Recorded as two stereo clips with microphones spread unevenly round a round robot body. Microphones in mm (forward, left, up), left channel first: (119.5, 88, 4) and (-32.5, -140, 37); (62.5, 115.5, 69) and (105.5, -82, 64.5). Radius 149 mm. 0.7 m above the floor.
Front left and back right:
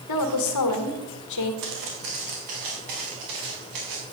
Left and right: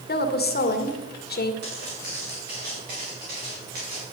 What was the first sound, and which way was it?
A woman speaking, 65° left.